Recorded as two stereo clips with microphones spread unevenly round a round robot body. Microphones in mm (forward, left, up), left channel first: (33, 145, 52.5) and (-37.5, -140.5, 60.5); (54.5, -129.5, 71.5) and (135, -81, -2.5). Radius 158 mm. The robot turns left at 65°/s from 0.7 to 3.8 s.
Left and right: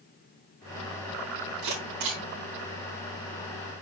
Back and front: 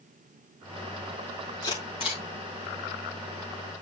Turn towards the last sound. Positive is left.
turn(degrees=115)